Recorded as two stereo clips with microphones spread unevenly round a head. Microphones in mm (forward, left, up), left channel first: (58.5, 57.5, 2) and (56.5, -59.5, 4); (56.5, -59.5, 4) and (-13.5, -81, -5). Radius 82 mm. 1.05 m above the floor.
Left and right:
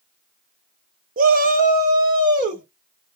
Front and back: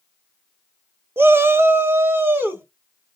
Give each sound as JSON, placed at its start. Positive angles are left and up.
{"t": 1.2, "sound": "a shout", "azimuth_deg": -105, "distance_m": 0.5}